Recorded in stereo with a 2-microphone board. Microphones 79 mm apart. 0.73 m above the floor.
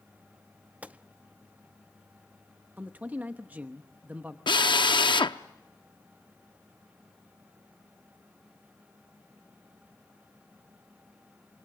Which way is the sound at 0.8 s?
20° right (ahead or behind).